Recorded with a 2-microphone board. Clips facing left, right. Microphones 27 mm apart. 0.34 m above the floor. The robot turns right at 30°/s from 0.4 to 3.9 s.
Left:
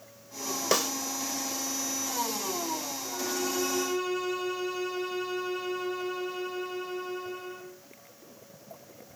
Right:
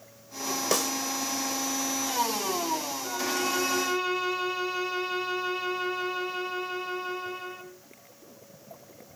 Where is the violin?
60° right (ahead or behind), 3 m; by 7.7 s 35° right (ahead or behind), 3 m.